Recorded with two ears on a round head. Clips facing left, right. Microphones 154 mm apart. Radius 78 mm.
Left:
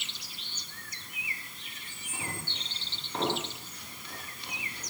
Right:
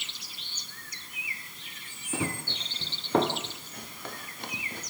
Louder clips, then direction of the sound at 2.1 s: Right 8 dB; 55° right (ahead or behind).